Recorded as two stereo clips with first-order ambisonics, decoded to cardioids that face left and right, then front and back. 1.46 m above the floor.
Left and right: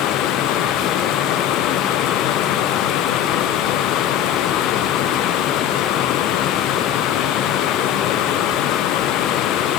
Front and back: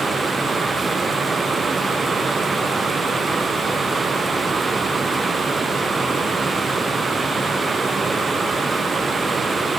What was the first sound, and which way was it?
Only background noise.